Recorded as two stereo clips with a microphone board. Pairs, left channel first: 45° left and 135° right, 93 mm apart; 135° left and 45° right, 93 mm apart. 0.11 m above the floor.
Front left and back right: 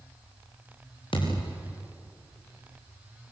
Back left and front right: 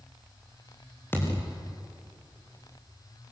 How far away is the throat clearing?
No throat clearing in this recording.